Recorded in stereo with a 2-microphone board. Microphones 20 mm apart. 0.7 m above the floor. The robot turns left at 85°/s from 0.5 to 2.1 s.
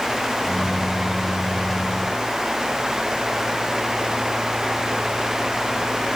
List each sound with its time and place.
Only background noise.